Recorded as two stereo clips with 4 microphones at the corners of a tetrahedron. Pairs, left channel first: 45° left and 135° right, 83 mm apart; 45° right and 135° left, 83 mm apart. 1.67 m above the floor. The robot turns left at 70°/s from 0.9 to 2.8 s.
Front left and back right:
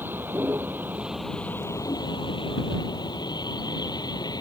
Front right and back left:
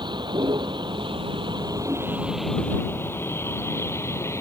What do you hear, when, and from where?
0.0 s a vehicle: 160° left; by 4.4 s 10° left